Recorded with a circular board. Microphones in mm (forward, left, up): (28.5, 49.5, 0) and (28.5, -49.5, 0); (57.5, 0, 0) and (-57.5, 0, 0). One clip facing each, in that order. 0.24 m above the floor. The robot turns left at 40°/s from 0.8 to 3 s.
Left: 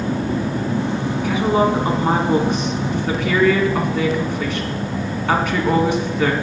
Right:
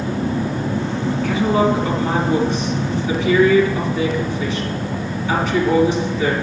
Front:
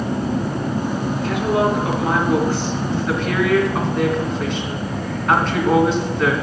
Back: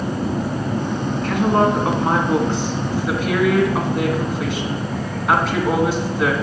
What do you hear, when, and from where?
1.2 s a woman speaking: 165° left, 2 m; by 6.3 s 95° left, 2 m